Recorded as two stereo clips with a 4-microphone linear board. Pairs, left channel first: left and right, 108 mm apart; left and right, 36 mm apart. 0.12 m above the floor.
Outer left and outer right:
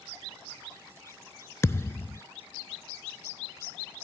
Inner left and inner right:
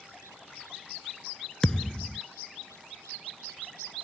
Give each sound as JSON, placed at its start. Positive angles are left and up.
{"t": 1.6, "sound": "a thud", "side_deg": 25}